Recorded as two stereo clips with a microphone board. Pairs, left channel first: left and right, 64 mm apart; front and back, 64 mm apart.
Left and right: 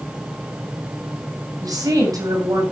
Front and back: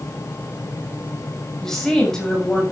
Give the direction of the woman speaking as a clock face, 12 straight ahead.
3 o'clock.